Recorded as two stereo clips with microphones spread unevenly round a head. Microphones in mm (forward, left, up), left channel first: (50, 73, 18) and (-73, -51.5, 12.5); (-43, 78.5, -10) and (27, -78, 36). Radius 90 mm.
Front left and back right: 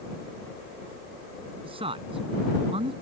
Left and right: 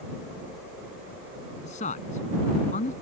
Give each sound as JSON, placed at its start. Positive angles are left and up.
{"t": 1.6, "sound": "a man speaking", "azimuth_deg": 165}